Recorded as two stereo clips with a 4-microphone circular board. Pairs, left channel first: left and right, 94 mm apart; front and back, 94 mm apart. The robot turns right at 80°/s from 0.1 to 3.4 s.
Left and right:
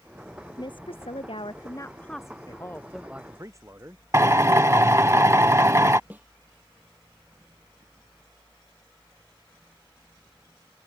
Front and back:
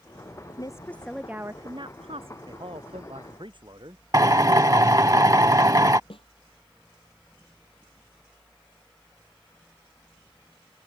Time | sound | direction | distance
0.6 | a woman speaking | 45° left | ?
2.5 | a man speaking | 135° left | ?
4.1 | a drill | 140° right | ?
6.1 | a snare drum | 20° right | ?